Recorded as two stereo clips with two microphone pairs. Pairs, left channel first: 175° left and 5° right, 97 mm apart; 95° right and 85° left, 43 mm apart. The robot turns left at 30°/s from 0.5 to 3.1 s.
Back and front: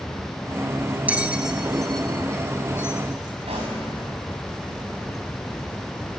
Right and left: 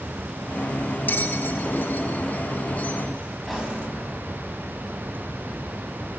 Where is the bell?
75° right, 0.8 m; by 3.0 s 135° right, 0.8 m.